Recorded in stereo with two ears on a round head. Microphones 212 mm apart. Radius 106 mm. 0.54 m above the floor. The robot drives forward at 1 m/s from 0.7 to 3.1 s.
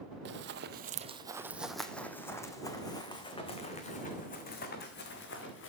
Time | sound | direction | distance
0.2 | running footsteps | 50° right (ahead or behind) | 1.1 m